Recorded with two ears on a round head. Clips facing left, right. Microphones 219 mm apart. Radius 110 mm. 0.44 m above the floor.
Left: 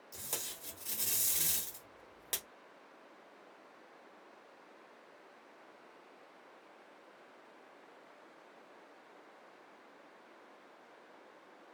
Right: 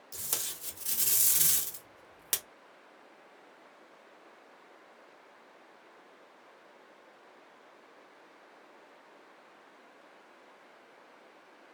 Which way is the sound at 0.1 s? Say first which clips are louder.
Right 1 dB; 15° right (ahead or behind).